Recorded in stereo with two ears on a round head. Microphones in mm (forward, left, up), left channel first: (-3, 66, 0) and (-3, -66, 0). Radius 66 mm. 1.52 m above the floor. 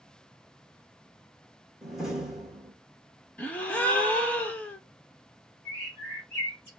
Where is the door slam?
5° right (ahead or behind), 1.2 m.